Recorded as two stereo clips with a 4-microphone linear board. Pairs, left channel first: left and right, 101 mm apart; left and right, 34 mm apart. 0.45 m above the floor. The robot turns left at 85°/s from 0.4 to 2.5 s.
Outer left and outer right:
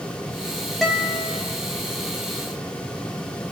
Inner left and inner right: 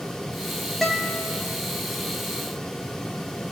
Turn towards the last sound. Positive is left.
turn(degrees=35)